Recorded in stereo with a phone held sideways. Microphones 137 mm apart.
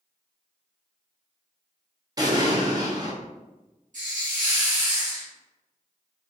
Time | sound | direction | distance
2.2 | an explosion | 30° right (ahead or behind) | 0.6 m
3.9 | a hiss | 70° right (ahead or behind) | 1.2 m